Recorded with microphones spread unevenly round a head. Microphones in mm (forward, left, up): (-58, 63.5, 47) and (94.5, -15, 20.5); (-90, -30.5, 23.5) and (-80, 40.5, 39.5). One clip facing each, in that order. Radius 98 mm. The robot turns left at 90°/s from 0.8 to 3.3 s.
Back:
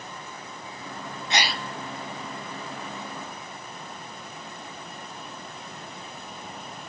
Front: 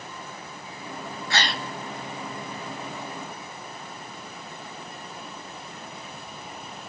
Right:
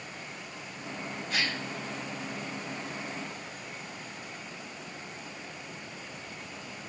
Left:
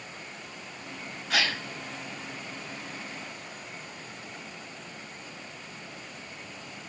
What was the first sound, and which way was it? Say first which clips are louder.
A gasp: back 1 dB, left 5 dB; 85° left.